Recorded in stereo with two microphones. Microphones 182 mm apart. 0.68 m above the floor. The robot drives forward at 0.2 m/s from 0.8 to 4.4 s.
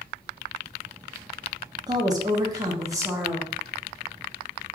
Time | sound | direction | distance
1.9 | a woman speaking | 20° right (ahead or behind) | 0.6 m